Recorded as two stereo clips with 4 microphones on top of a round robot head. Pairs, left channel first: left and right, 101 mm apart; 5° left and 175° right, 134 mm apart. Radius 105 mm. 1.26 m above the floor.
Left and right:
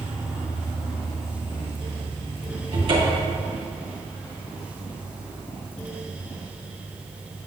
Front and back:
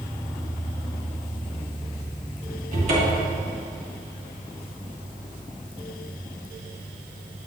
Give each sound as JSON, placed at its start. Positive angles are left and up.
{"t": 2.7, "sound": "a cupboard door", "azimuth_deg": -135, "distance_m": 1.4}